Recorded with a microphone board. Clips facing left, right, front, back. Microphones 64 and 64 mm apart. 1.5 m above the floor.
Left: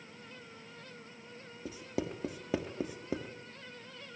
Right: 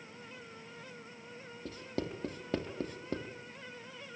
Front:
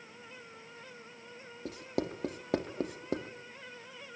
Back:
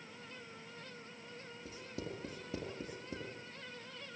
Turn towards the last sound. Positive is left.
turn(degrees=10)